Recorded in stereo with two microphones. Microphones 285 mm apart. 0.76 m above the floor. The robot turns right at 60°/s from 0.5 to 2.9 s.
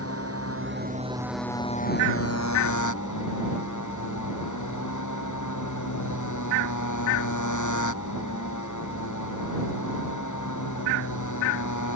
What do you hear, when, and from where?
0.0 s a motorcycle: 50° right; by 12.0 s 90° left